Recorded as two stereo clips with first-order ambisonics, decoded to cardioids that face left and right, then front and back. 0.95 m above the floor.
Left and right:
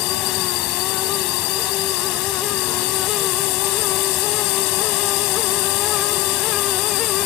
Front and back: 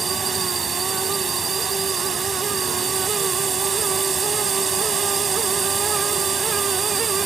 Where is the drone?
110° left.